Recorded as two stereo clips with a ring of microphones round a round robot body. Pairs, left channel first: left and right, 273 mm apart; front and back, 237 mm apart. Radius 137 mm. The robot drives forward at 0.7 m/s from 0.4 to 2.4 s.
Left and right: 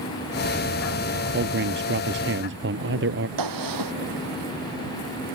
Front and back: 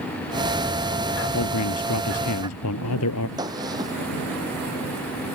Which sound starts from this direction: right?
A gunshot, at 3.4 s.